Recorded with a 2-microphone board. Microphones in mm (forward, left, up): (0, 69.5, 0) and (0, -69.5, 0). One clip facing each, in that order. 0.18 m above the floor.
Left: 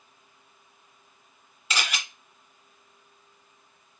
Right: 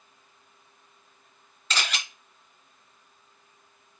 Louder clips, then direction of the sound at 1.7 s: Even; 10° left (ahead or behind).